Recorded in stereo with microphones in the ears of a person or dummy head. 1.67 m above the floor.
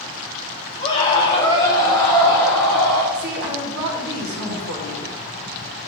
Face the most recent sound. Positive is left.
turn(degrees=-65)  # may be behind; listen again after turning